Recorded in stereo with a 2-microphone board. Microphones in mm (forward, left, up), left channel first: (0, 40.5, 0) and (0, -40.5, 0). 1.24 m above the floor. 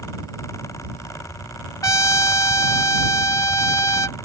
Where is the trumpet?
40° left (ahead or behind).